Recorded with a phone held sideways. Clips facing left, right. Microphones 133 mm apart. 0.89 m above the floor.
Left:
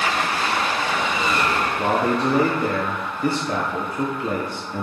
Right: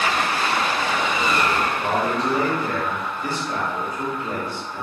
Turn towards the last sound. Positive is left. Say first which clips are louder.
# left 2 dB
turn(degrees=55)  # may be behind; listen again after turning